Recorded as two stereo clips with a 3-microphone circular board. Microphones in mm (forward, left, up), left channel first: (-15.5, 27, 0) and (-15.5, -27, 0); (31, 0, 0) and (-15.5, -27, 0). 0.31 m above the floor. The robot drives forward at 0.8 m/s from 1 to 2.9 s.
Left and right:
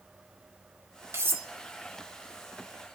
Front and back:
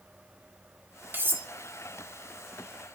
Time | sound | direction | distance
1.1 | cutlery clinking | 110° right | 1.0 m